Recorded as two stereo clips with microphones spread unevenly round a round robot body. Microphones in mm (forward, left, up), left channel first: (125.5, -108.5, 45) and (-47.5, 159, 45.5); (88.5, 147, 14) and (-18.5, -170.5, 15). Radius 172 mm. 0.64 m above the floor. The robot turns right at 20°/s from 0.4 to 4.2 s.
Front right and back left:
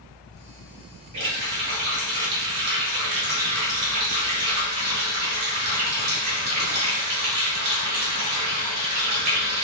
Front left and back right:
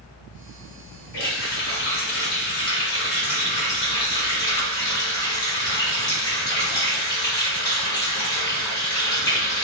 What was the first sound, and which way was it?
A running tap, 90° left.